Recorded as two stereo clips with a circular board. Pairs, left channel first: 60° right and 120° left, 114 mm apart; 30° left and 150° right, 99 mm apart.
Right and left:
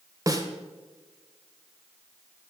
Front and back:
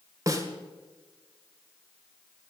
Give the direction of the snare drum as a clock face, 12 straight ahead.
6 o'clock.